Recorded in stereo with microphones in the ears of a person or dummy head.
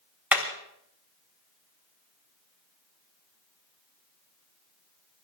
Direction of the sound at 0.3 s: 10° right (ahead or behind).